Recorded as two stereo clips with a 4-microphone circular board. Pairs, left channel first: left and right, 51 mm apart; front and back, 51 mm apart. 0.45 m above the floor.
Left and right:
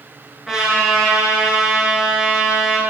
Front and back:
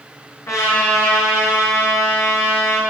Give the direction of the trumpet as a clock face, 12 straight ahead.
12 o'clock.